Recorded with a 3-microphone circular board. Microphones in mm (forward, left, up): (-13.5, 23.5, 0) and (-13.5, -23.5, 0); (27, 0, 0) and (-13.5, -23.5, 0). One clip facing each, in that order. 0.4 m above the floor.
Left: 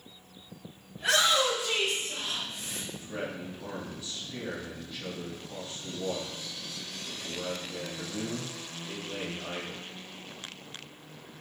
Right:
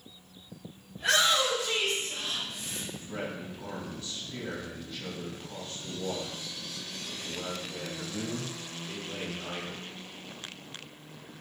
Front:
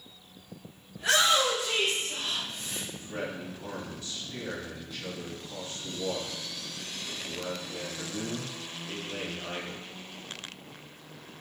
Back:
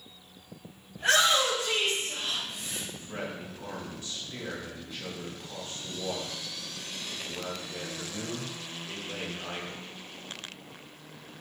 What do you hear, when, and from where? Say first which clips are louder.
0.9 s a shout: even, back 1 dB; 175° left, 2.0 m; by 2.8 s 135° left, 1.4 m
2.9 s a man speaking: left 1 dB, front 3 dB; 165° left, 1.8 m